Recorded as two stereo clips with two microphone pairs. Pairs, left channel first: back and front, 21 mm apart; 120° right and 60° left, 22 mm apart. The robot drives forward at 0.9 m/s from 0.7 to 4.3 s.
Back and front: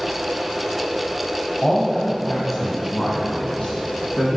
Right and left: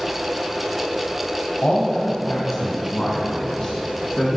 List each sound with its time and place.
1.6 s a man speaking: 115° right, 1.5 m; by 4.4 s 160° right, 3.5 m